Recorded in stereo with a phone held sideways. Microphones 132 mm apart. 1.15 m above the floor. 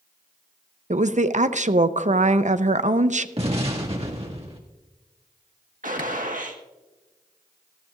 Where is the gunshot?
75° right (ahead or behind), 1.5 m.